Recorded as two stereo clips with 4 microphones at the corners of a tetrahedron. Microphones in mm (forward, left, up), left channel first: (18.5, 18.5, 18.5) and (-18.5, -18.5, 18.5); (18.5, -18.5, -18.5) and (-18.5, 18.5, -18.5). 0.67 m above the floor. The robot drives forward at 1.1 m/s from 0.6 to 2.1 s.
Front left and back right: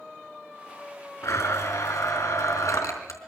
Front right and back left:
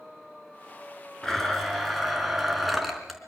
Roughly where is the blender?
Ahead left.